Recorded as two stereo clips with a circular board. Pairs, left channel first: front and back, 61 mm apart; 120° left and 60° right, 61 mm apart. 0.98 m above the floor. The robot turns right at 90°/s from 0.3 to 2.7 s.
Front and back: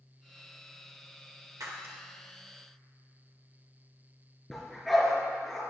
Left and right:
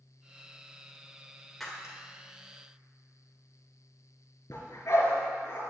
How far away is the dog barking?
About 4 m.